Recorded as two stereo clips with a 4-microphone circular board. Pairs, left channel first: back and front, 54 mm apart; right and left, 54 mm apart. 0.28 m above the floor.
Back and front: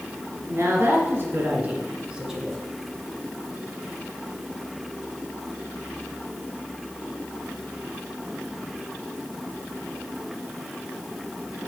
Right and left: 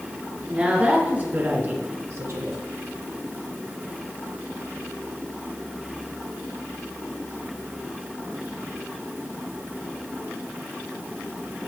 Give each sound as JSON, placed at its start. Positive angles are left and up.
{"t": 0.5, "sound": "a woman speaking", "azimuth_deg": 25, "distance_m": 3.5}